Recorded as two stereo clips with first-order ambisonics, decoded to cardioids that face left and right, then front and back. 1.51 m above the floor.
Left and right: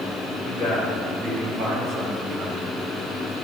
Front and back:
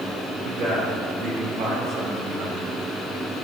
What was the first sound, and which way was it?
A man speaking, 140° right.